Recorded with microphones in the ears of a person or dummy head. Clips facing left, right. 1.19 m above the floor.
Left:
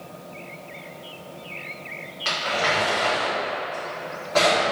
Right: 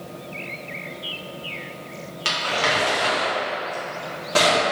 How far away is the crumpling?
About 1.4 m.